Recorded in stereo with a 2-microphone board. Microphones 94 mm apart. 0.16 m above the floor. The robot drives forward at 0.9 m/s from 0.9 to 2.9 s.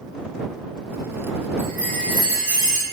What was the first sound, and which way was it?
A chime, 20° left (ahead or behind).